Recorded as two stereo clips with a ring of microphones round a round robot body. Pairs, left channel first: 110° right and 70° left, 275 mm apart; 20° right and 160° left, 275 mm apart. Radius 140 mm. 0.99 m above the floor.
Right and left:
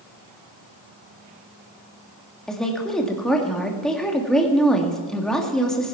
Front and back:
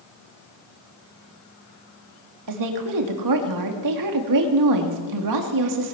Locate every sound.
2.5 s a woman speaking: 160° left, 2 m